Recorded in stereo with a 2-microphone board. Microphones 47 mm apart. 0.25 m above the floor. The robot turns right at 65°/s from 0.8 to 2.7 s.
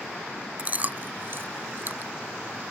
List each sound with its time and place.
0.6 s chewing: 35° right (ahead or behind); by 2.1 s 40° right (ahead or behind)